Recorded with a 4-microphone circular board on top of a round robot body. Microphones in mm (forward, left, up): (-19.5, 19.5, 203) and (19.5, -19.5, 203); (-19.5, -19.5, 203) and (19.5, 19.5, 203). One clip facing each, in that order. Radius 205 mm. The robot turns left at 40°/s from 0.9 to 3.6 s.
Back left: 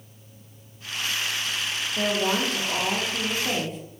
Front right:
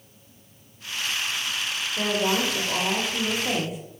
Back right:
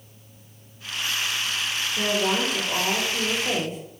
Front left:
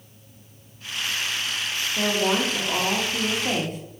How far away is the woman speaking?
About 1.4 m.